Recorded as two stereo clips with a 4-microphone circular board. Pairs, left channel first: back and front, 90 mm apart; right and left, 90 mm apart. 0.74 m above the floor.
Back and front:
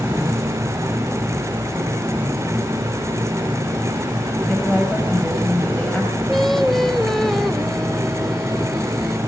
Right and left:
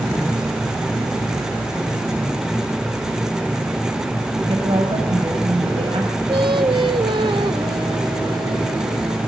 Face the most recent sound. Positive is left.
turn(degrees=90)